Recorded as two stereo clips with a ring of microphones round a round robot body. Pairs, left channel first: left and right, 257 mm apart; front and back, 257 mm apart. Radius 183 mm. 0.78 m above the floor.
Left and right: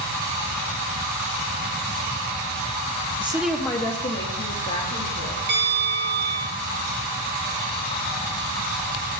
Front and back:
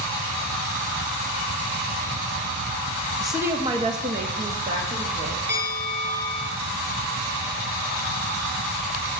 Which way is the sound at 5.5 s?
115° right.